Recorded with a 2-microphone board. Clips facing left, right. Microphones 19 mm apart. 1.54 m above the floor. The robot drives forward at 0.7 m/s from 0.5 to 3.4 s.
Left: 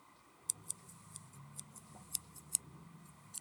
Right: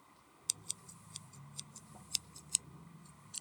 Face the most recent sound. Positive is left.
turn(degrees=-40)  # may be behind; listen again after turning